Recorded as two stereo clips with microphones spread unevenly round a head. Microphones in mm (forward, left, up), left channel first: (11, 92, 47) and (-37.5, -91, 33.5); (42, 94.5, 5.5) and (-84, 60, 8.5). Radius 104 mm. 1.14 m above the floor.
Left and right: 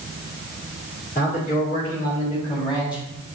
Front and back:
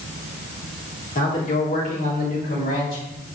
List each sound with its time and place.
1.1 s a man speaking: 30° left, 3 m; by 3.0 s 5° left, 3 m